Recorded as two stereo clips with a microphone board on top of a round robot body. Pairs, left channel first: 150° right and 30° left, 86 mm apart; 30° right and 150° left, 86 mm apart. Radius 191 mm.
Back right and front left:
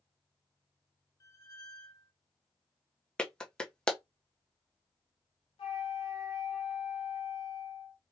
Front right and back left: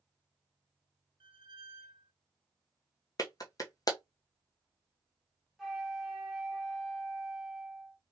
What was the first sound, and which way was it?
A squeak, 165° left.